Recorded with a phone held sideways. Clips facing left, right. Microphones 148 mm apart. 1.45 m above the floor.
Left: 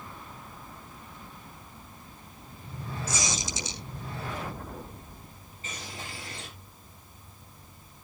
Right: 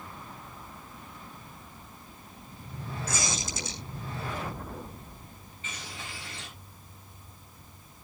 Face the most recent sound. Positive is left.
turn(degrees=40)  # may be behind; listen again after turning